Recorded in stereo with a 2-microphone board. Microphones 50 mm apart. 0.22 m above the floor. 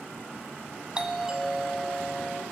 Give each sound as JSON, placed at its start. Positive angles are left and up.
{"t": 0.9, "sound": "a doorbell", "side_deg": -25, "distance_m": 1.8}